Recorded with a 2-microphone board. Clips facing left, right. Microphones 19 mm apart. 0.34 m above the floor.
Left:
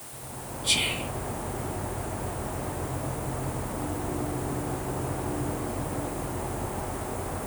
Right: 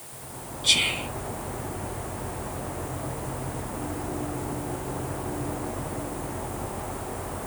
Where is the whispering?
45° right (ahead or behind), 3.5 m.